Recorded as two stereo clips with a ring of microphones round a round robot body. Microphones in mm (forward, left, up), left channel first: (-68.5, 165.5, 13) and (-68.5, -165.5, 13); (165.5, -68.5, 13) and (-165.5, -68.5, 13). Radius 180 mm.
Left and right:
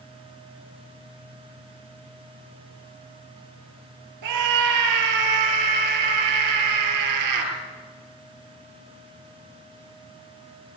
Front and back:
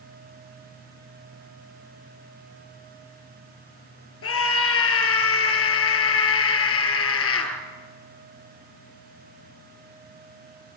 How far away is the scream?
About 6 m.